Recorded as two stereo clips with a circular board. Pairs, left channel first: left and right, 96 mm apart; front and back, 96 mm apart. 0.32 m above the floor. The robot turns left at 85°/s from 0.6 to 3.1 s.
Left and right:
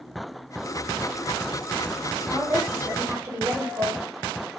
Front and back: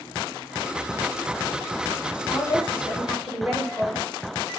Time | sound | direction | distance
2.3 | a woman speaking | 20° right | 1.2 m